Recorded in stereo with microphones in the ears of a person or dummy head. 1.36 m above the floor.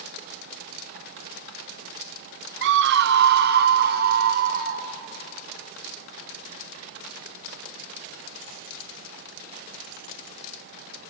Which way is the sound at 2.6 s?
60° right (ahead or behind).